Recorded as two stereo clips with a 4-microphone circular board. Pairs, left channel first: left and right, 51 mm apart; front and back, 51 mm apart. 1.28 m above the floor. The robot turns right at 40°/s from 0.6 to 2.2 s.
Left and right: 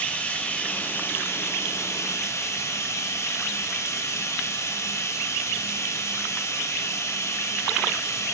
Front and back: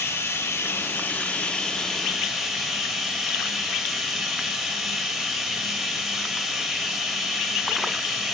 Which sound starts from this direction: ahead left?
Running water, at 0.0 s.